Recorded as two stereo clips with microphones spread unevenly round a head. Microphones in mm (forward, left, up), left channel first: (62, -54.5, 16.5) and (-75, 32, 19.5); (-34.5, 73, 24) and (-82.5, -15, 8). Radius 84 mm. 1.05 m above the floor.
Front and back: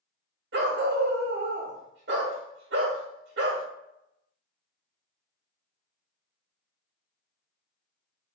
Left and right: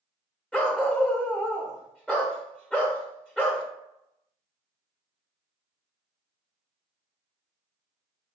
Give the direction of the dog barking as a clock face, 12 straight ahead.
8 o'clock.